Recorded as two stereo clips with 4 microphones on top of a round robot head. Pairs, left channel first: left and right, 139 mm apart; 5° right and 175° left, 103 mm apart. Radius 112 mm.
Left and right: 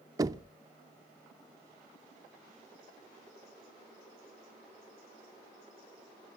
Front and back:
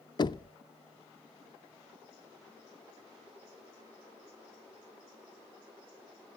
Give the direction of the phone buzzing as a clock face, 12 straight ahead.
No phone buzzing in this recording.